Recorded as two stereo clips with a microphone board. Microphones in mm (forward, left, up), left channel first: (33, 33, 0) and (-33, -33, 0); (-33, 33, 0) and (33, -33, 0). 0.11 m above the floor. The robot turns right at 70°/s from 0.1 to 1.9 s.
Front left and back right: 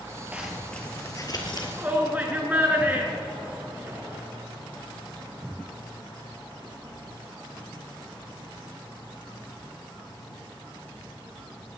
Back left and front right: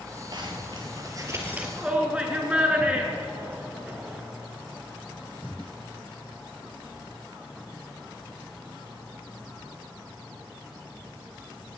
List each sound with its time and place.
0.3 s a zipper: 65° right, 2 m; by 1.7 s 30° left, 2 m
1.8 s a shout: 105° right, 1.6 m; by 4.2 s 100° right, 1.6 m